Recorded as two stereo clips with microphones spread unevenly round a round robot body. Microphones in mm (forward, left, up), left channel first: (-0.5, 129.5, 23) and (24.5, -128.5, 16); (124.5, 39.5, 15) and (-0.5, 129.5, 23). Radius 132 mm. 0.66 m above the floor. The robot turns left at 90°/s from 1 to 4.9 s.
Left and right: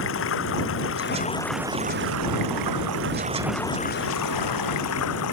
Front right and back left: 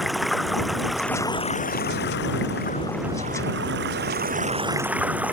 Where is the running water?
55° left; by 5.3 s 65° left.